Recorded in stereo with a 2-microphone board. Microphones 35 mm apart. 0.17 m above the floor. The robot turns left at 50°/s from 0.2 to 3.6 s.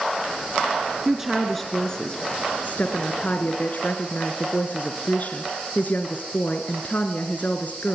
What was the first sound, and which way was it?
A woman speaking, 160° right.